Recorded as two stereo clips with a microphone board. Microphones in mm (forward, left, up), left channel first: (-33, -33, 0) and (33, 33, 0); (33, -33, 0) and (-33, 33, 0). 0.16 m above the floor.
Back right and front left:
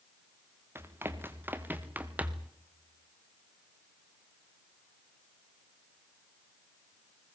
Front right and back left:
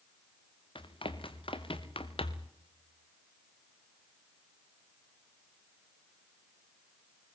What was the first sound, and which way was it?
Running footsteps, 20° right.